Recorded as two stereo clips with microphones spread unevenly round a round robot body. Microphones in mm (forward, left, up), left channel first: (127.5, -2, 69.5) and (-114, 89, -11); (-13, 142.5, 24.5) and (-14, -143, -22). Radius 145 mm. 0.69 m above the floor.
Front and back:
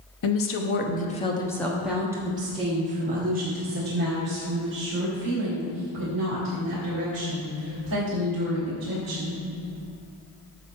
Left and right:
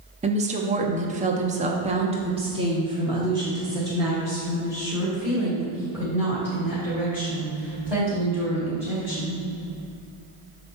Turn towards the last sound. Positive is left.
turn(degrees=-175)